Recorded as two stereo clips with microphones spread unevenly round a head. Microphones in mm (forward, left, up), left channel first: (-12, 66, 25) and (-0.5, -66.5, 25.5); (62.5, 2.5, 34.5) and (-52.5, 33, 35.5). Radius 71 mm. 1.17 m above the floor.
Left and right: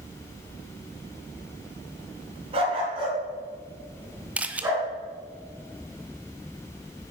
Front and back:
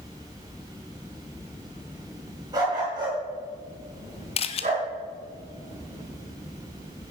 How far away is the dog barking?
About 4 m.